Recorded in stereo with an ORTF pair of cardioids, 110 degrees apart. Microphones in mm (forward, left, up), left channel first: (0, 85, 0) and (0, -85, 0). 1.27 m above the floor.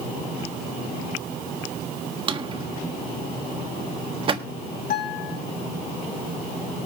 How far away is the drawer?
About 1.5 m.